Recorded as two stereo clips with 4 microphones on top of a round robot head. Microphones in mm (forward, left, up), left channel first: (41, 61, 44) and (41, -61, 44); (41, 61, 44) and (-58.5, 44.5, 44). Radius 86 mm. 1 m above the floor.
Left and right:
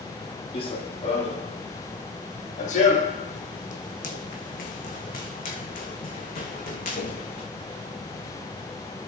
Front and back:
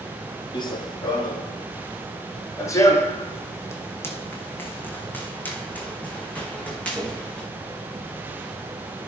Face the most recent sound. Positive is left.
turn(degrees=85)